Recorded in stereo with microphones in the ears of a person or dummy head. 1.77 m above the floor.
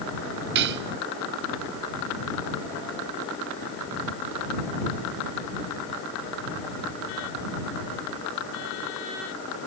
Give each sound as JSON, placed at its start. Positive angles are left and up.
{"t": 0.6, "sound": "cutlery clinking", "side_deg": -60}